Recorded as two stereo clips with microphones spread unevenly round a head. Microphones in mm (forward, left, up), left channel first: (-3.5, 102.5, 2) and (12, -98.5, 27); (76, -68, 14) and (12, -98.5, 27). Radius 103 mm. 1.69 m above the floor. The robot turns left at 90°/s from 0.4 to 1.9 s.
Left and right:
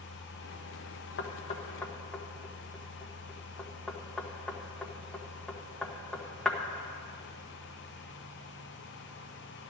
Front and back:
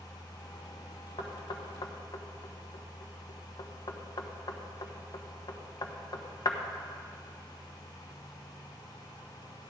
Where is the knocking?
65° left, 1.2 m; by 6.6 s straight ahead, 1.2 m.